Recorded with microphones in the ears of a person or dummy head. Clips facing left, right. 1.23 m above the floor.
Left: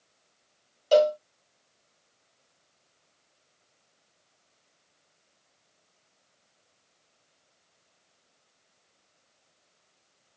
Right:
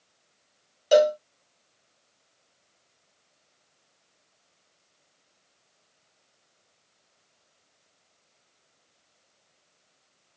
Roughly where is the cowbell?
Centre.